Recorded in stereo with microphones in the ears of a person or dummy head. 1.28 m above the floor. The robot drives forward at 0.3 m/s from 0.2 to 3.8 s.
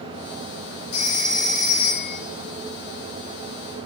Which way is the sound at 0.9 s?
85° left.